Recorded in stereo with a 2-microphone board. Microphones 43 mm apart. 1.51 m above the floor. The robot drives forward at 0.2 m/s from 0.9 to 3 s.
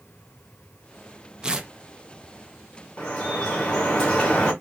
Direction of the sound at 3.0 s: 20° left (ahead or behind).